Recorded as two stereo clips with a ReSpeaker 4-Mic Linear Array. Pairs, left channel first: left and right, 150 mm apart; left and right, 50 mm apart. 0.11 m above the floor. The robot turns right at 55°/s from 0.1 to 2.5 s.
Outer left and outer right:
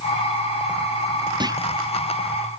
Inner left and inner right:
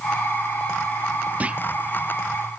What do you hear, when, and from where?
1.4 s a clunk: 30° right (ahead or behind); by 1.6 s 20° right (ahead or behind)